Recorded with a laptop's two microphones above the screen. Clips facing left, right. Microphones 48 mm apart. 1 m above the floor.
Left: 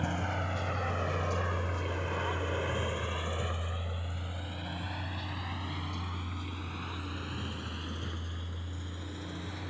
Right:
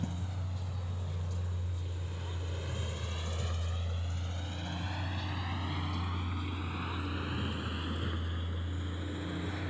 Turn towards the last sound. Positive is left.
turn(degrees=-15)  # may be behind; listen again after turning